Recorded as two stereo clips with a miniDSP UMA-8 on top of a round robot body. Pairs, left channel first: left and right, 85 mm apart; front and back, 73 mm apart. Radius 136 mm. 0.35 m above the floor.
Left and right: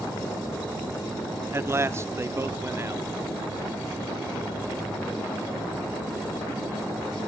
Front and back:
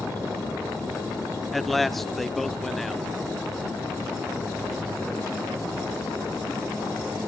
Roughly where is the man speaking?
Right.